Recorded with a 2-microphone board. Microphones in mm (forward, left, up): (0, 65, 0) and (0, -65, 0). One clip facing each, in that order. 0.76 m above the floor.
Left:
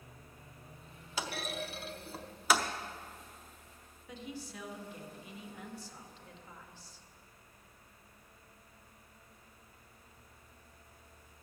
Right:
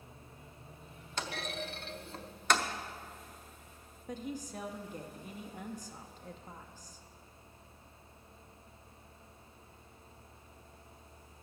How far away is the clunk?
About 0.7 m.